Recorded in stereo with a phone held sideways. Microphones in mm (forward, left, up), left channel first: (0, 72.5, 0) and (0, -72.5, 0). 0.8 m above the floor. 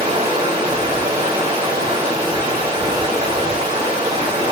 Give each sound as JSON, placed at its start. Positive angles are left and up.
{"t": 0.0, "sound": "running water", "side_deg": -35, "distance_m": 2.5}